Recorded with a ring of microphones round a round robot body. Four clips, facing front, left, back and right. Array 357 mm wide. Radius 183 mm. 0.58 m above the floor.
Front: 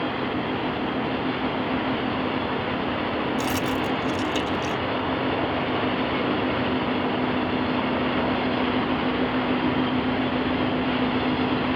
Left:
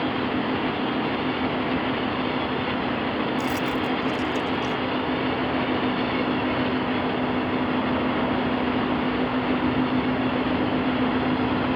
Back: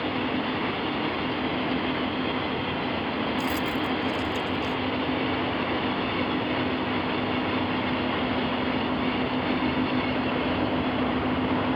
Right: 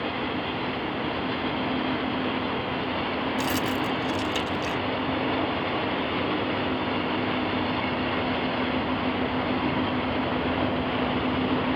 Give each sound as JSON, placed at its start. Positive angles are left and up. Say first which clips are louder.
{"t": 3.4, "sound": "keys jangling", "louder": "left 2 dB, front 2 dB", "azimuth_deg": -50}